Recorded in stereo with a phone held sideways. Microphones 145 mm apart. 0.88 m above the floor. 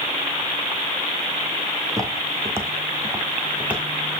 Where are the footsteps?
25° right (ahead or behind), 3 m; by 4.2 s 5° right (ahead or behind), 3.5 m.